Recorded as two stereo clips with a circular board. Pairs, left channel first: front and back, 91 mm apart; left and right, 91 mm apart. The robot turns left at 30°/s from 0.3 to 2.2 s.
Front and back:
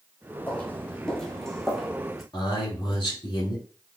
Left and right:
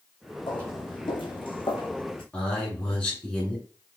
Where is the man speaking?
15° left, 2 m.